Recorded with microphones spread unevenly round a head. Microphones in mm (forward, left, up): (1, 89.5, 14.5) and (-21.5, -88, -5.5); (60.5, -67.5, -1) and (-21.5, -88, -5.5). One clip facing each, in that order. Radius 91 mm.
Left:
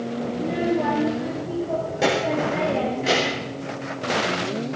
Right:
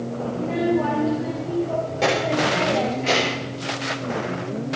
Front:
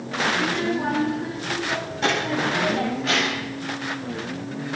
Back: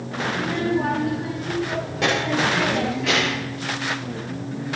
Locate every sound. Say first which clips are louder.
0.3 s a child speaking: right 2 dB, back 4 dB; 160° left, 7 m; by 3.5 s 165° left, 5 m